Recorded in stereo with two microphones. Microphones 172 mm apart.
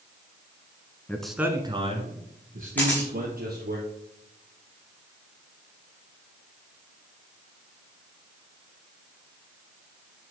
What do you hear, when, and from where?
1.1 s a man speaking: 10° left (ahead or behind), 1.3 m; by 3.8 s 70° right (ahead or behind), 3.5 m
2.8 s a camera shutter: 10° left (ahead or behind), 5 m